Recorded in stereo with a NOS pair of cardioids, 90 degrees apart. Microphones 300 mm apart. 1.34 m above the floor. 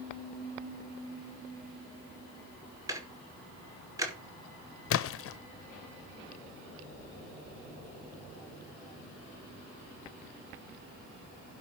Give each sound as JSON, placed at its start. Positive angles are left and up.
{"t": 2.9, "sound": "ticking", "azimuth_deg": -10, "distance_m": 2.0}
{"t": 4.9, "sound": "a splash", "azimuth_deg": 50, "distance_m": 0.7}